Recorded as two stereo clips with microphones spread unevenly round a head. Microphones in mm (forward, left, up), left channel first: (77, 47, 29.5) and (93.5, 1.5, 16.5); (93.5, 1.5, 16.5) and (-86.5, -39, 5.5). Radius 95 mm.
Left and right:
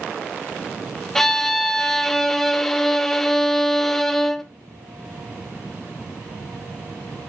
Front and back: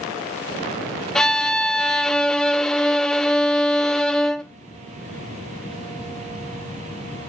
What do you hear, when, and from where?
1.1 s a violin: 85° left, 0.5 m